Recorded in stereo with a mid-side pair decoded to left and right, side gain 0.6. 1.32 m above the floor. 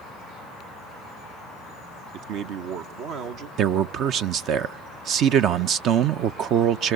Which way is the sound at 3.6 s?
60° right.